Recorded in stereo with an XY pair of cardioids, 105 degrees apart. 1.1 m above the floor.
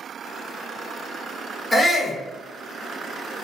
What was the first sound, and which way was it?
A shout, 10° left.